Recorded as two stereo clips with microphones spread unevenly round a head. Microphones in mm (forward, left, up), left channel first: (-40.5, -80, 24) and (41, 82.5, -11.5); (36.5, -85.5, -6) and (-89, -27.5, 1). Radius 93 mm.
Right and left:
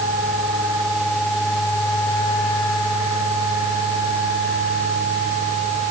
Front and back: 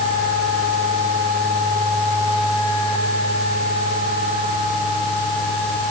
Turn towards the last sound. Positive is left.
No sound to turn to.